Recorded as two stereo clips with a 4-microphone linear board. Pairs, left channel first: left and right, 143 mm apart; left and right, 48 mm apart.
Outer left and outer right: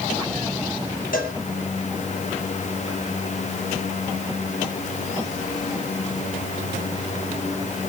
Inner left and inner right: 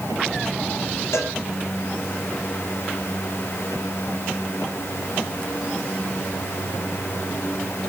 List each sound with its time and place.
1.1 s a cowbell: 75° left (ahead or behind), 4 m